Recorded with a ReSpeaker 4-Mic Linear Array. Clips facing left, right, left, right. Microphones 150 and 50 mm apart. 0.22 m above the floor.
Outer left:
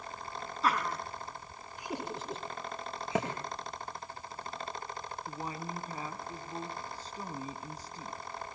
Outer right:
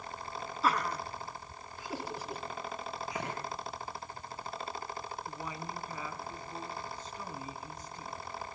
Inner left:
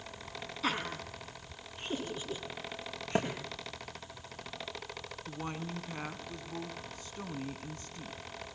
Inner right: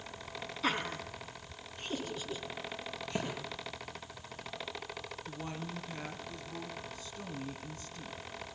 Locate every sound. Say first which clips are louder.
0.6 s laughter: even, inner right 1 dB; centre (ahead or behind), 2 m; by 3.5 s 30° left (ahead or behind), 4 m
3.1 s a thud: outer left 9 dB, inner left 6 dB; 85° left, 5 m
5.3 s a woman speaking: outer left 1 dB, inner left 4 dB; 35° left (ahead or behind), 2.5 m